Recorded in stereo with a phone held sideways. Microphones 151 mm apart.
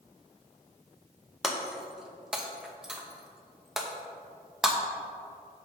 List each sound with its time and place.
1.4 s breaking glass: 5° right (ahead or behind), 0.7 m